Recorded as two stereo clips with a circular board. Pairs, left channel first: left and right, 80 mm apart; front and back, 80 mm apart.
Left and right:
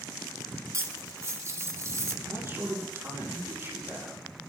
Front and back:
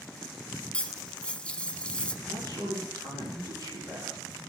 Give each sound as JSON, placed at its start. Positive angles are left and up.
{"t": 0.7, "sound": "cutlery clinking", "azimuth_deg": -65, "distance_m": 0.7}
{"t": 2.2, "sound": "a man speaking", "azimuth_deg": -145, "distance_m": 6.5}